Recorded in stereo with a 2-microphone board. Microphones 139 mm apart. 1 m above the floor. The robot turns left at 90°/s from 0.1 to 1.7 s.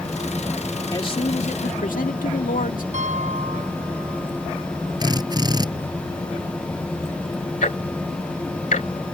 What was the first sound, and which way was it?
A man speaking, 155° left.